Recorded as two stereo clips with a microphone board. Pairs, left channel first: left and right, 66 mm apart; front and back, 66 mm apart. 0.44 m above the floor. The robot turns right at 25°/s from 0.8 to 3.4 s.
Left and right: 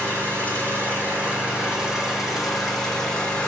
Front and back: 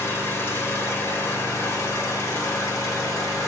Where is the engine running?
45° right, 1.6 m; by 3.5 s 20° left, 1.6 m.